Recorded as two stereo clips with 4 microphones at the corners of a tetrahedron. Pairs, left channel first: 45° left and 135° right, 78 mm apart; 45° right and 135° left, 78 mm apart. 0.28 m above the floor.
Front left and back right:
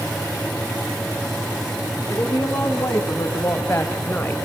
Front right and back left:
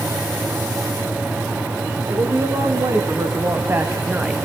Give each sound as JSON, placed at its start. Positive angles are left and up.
{"t": 2.1, "sound": "a woman speaking", "azimuth_deg": 105, "distance_m": 3.5}